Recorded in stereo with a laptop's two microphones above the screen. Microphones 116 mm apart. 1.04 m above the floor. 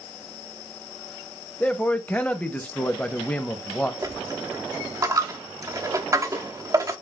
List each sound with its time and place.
1.6 s a man speaking: 15° left (ahead or behind), 0.7 m
4.0 s a dropped coin: 30° right (ahead or behind), 0.6 m